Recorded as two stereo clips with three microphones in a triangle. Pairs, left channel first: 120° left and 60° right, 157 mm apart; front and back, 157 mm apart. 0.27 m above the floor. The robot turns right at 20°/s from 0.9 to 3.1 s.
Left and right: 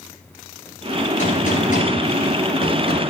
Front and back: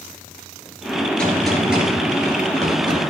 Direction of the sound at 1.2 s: 85° left.